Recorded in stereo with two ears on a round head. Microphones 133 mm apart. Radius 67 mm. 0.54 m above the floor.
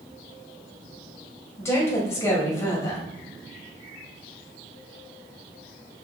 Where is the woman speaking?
20° left (ahead or behind), 2.5 m.